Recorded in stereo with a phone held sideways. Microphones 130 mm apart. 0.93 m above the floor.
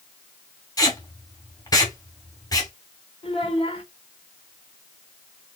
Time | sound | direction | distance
0.8 | tape being pulled | 30° left (ahead or behind) | 2 m
3.2 | a child speaking | 40° left (ahead or behind) | 1.5 m